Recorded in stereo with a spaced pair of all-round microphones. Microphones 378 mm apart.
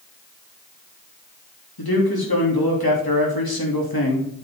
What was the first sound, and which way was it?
A man speaking, 80° left.